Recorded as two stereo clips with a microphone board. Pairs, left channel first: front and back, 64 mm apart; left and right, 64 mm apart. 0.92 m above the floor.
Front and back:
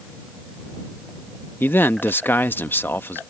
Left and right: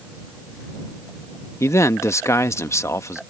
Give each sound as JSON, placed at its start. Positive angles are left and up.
{"t": 1.6, "sound": "a man speaking", "azimuth_deg": 50}